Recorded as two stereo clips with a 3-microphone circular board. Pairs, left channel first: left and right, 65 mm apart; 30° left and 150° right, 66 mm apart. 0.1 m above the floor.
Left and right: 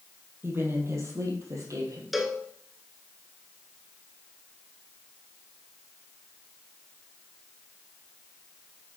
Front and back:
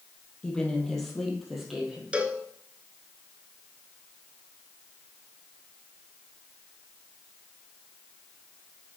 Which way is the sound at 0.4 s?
45° right.